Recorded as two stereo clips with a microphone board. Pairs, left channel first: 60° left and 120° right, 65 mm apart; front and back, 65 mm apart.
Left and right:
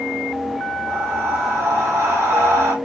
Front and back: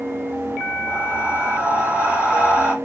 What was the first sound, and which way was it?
Breathing, 120° right.